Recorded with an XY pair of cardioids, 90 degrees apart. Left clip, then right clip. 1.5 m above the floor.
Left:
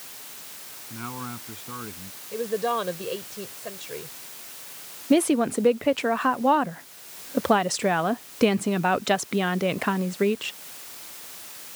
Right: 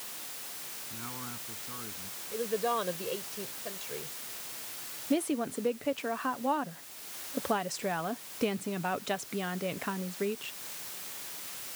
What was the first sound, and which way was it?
A man speaking, 55° left.